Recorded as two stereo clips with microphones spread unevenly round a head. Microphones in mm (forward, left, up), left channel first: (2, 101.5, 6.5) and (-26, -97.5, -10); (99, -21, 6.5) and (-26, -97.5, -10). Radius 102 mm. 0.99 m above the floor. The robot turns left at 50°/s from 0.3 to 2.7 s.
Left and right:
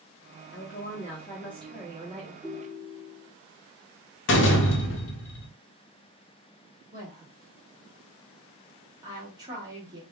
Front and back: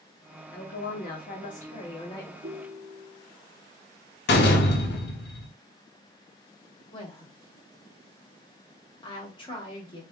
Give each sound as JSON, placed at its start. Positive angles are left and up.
{"t": 0.5, "sound": "a woman speaking", "azimuth_deg": 50, "distance_m": 1.2}
{"t": 2.4, "sound": "a ringtone", "azimuth_deg": 175, "distance_m": 0.7}
{"t": 4.3, "sound": "a door slam", "azimuth_deg": 45, "distance_m": 0.6}
{"t": 6.9, "sound": "a woman speaking", "azimuth_deg": -25, "distance_m": 1.6}